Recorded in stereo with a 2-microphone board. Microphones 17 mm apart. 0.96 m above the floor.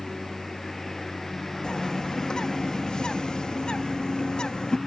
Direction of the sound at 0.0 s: 20° left (ahead or behind).